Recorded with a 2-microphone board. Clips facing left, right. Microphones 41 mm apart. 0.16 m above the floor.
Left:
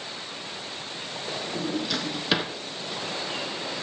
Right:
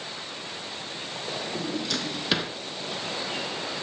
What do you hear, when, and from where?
1.6 s a drawer: 5° left (ahead or behind), 1.2 m